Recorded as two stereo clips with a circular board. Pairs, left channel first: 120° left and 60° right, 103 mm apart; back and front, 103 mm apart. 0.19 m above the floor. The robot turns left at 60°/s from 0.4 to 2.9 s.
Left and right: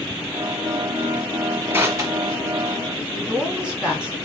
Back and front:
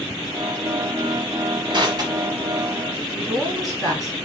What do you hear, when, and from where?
1.7 s crushing: straight ahead, 1.2 m; by 3.0 s 75° right, 1.2 m
3.1 s a woman speaking: 15° left, 1.6 m